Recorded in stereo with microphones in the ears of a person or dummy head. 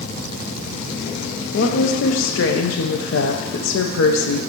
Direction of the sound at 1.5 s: 70° left (ahead or behind).